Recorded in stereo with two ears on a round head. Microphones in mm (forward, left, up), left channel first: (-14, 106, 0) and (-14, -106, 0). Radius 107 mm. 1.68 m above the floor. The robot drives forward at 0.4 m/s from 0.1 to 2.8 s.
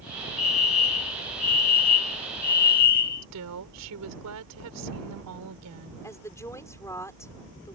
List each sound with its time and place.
0.4 s a fire alarm: 30° left (ahead or behind); by 3.2 s 40° left (ahead or behind)
3.2 s a woman speaking: 85° right
6.0 s a woman speaking: 10° left (ahead or behind)